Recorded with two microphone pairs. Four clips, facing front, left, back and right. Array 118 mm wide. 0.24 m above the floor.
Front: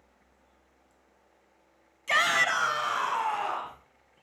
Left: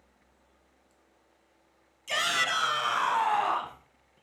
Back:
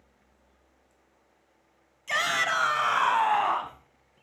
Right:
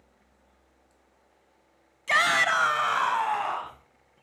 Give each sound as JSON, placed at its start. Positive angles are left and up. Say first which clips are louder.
{"t": 2.1, "sound": "a shout", "louder": "right 6 dB, front 2 dB", "azimuth_deg": -70, "distance_m": 1.7}